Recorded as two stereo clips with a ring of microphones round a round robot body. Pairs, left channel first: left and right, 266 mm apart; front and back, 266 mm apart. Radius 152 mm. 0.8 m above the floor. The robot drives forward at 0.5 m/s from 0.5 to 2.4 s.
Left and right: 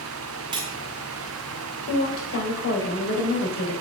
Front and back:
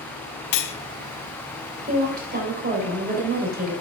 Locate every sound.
0.5 s cutlery clinking: 15° right, 0.8 m; by 0.8 s 20° right, 0.7 m
1.9 s a woman speaking: 120° left, 3 m; by 3.8 s 125° left, 3 m